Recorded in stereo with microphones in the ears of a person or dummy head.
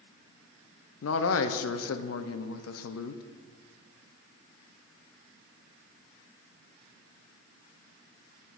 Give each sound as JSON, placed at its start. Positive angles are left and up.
{"t": 1.0, "sound": "a man speaking", "side_deg": 75, "distance_m": 0.7}